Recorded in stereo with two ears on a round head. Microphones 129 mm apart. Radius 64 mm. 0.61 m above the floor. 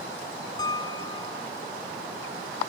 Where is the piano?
30° left (ahead or behind).